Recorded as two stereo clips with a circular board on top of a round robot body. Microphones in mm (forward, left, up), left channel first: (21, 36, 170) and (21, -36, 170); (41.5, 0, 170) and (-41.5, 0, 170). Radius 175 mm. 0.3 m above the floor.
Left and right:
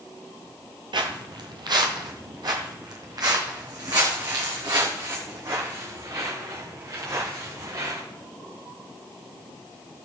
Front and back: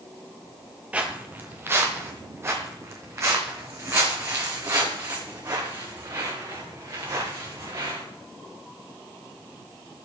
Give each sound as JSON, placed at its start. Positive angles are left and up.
{"t": 0.9, "sound": "footsteps", "azimuth_deg": -105, "distance_m": 0.6}